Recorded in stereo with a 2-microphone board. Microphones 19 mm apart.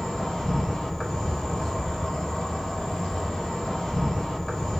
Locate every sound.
0.0 s an insect: 65° left (ahead or behind), 1.6 m